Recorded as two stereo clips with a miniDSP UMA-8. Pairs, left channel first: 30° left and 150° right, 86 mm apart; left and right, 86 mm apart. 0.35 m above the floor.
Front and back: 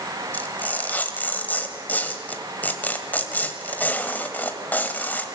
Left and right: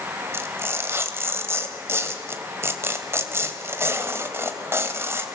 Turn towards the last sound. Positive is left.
turn(degrees=-35)